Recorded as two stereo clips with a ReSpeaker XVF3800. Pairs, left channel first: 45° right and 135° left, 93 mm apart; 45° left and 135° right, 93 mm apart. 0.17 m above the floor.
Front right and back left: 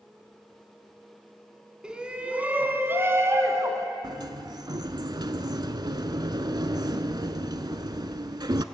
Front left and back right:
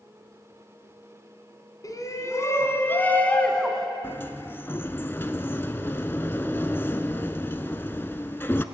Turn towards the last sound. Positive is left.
turn(degrees=105)